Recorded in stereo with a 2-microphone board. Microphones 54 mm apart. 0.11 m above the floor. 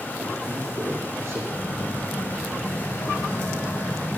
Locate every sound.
0.2 s a man speaking: 70° right (ahead or behind), 7 m
1.5 s a phone buzzing: 85° left, 4 m